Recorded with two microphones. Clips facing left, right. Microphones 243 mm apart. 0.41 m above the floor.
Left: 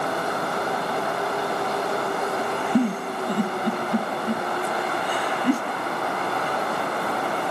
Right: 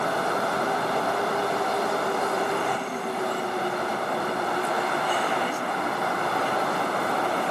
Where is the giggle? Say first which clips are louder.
Left 7 dB; 70° left (ahead or behind), 1.0 m.